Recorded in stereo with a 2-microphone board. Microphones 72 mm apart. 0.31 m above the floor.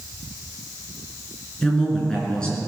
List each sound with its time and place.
1.6 s a woman speaking: 10° left (ahead or behind), 4.5 m